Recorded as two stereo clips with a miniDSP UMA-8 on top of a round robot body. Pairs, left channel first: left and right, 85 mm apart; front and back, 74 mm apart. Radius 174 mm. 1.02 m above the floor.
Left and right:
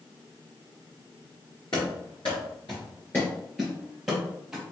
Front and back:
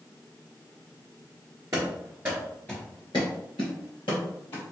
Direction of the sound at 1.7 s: 130° left.